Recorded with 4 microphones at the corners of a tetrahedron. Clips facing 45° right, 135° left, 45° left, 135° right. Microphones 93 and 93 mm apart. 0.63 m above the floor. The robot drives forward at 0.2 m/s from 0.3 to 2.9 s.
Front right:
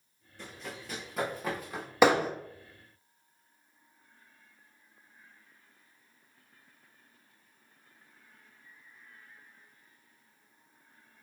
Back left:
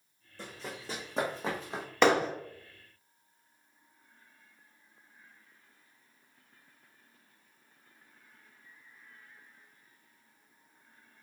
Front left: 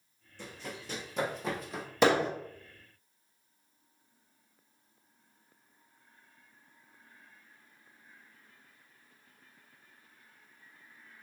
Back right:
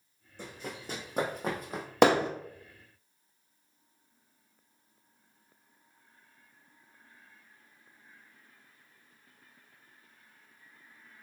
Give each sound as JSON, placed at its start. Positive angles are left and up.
{"t": 0.4, "sound": "running footsteps", "azimuth_deg": -170, "distance_m": 2.0}
{"t": 2.0, "sound": "hammering", "azimuth_deg": -125, "distance_m": 1.0}